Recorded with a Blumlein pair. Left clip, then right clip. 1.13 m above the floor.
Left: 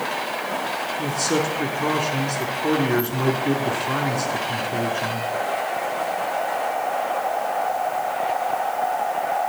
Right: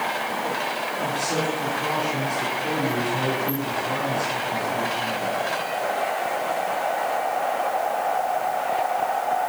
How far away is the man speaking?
About 3.5 m.